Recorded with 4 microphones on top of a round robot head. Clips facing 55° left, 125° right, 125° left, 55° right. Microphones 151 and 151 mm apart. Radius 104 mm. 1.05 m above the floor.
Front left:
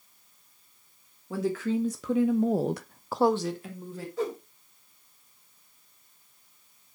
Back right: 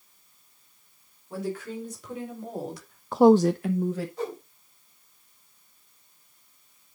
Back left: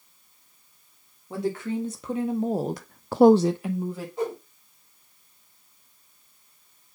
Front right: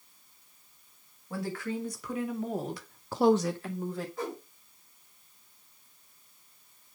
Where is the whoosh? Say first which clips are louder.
Front left 2 dB, back left 11 dB; 55° left, 5.5 m.